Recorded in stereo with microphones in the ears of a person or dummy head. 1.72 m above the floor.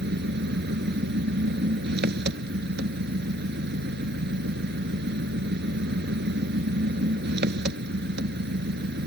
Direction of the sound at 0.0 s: 60° right (ahead or behind).